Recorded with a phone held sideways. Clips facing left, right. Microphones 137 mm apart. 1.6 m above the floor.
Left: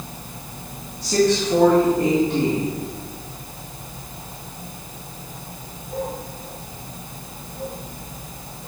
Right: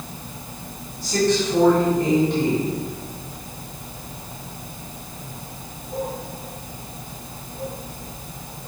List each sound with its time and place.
1.0 s a woman speaking: 65° left (ahead or behind), 3 m